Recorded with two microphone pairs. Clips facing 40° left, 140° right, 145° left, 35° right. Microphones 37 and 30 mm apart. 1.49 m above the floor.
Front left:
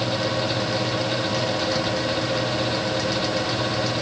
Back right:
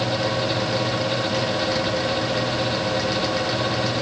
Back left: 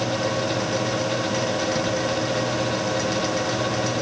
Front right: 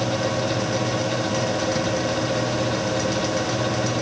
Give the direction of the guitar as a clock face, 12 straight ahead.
I don't hear a guitar.